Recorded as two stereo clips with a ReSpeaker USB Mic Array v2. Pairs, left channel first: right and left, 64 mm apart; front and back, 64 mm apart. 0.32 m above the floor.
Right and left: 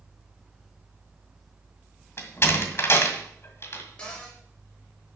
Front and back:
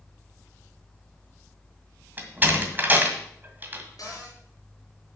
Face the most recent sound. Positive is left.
turn(degrees=-20)